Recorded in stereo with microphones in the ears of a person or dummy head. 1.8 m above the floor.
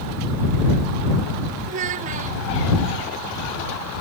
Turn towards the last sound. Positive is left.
turn(degrees=-30)  # may be behind; listen again after turning